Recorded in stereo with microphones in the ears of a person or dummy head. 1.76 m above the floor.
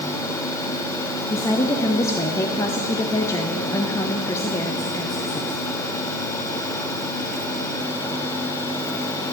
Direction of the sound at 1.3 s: 20° left (ahead or behind).